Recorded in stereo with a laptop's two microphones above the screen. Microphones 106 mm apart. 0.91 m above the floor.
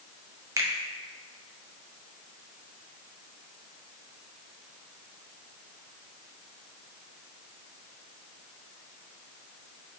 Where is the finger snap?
30° right (ahead or behind), 0.6 m.